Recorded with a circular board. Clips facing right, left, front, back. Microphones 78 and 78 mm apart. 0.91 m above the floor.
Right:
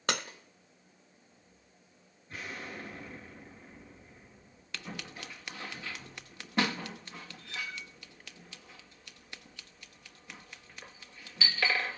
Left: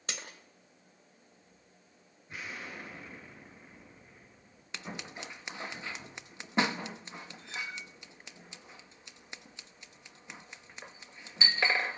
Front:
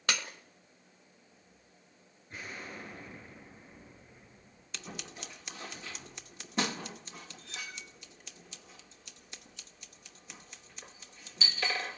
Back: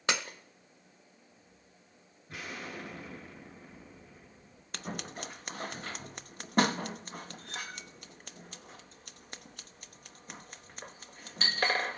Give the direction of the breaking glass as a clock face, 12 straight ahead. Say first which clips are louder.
Right 10 dB, back 2 dB; 4 o'clock.